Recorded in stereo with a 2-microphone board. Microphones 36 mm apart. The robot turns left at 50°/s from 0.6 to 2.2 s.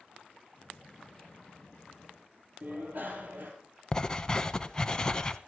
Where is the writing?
20° left (ahead or behind), 0.7 m.